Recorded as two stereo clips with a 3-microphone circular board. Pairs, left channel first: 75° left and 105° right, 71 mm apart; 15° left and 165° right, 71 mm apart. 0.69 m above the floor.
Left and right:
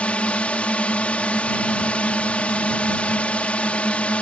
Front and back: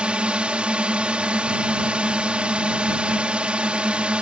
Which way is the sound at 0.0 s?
135° left.